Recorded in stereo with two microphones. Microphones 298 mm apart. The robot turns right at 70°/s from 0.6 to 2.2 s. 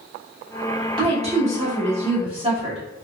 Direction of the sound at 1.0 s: 15° right (ahead or behind).